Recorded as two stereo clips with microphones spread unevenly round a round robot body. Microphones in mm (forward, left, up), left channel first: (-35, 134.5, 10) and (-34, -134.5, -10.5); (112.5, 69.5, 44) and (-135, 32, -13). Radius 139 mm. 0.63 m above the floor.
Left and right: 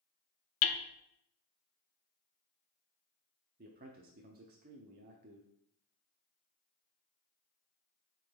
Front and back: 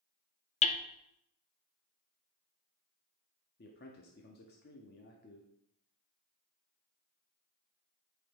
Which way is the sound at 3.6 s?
45° right.